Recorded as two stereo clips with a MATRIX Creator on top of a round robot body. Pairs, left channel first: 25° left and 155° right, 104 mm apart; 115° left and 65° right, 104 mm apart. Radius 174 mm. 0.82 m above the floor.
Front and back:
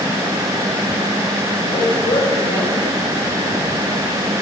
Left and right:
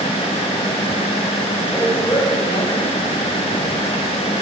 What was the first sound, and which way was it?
A man speaking, 55° left.